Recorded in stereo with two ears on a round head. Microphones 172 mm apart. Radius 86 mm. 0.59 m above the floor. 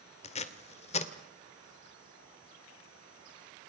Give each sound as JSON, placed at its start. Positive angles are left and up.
{"t": 0.2, "sound": "tape being pulled", "side_deg": 35, "distance_m": 1.9}